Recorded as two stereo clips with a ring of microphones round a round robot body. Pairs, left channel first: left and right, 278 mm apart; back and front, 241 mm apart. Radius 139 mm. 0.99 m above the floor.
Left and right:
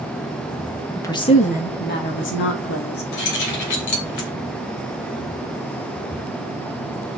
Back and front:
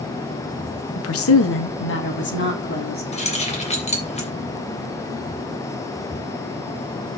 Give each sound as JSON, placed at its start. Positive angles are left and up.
{"t": 0.9, "sound": "a woman speaking", "azimuth_deg": 170, "distance_m": 1.5}
{"t": 3.1, "sound": "keys jangling", "azimuth_deg": 115, "distance_m": 3.0}